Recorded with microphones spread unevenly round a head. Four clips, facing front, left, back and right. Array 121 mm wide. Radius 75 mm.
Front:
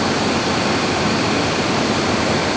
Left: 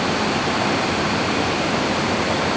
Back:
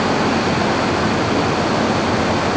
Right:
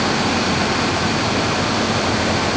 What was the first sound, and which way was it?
Only background noise.